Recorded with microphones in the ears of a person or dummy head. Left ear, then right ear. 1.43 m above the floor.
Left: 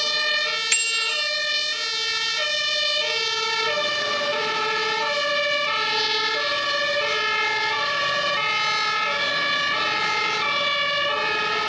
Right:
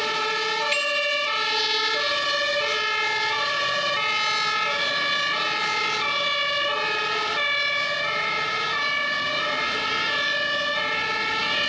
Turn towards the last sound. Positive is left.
turn(degrees=45)  # may be behind; listen again after turning